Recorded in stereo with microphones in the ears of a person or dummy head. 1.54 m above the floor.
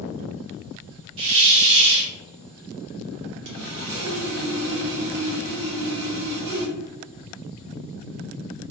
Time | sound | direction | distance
1.2 | a hiss | 75° right (ahead or behind) | 1.4 m
3.5 | sawing | 65° right (ahead or behind) | 1.2 m